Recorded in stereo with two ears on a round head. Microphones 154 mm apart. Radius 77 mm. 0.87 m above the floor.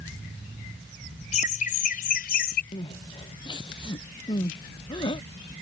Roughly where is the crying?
Left.